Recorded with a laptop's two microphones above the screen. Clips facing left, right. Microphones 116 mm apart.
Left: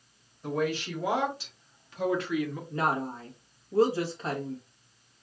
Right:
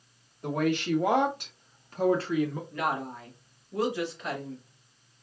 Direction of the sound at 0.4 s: 60° right (ahead or behind).